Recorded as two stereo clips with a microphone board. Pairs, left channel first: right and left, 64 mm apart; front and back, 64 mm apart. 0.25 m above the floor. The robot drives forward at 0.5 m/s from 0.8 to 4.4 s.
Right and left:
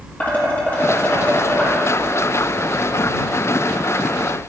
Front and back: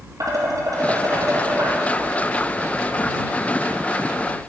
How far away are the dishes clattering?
About 3.5 m.